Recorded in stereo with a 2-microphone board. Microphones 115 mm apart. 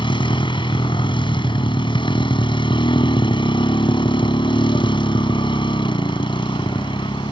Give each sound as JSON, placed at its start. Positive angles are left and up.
{"t": 0.0, "sound": "a motorcycle", "side_deg": 45}